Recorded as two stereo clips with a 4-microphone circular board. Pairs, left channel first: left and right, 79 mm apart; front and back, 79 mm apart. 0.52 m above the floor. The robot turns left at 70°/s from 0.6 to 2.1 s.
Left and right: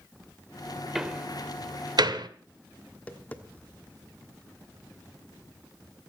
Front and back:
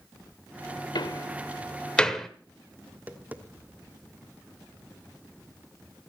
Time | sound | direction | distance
0.9 | a door slam | 5° right | 1.3 m
2.9 | tapping | 135° left | 1.3 m